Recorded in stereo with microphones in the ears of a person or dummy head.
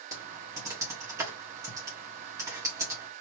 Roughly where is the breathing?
I don't hear breathing.